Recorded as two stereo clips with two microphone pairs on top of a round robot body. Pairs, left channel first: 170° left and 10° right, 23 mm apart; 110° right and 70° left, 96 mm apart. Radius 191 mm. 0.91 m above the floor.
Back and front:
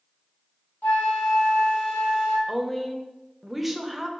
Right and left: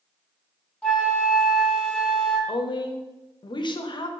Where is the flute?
170° left, 0.7 m.